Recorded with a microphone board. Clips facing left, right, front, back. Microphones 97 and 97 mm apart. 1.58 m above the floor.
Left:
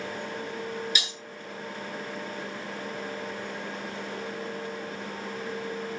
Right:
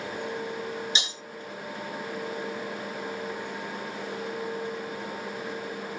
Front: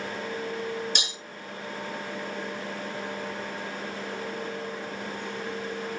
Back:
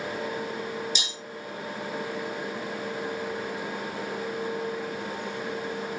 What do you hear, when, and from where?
0.9 s breaking glass: 30° right, 8 m